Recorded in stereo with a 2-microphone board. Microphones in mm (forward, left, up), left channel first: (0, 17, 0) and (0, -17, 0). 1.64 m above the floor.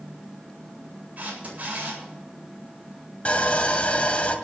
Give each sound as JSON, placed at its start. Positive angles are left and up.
{"t": 1.2, "sound": "a camera shutter", "side_deg": -45, "distance_m": 8.5}
{"t": 3.2, "sound": "sawing", "side_deg": 40, "distance_m": 1.9}